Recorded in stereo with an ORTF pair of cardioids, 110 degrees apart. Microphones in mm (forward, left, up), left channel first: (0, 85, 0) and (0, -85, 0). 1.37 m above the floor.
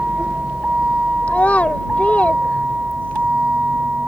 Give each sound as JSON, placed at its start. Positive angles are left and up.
{"t": 0.0, "sound": "a vehicle", "azimuth_deg": -5}
{"t": 1.3, "sound": "a child speaking", "azimuth_deg": 10}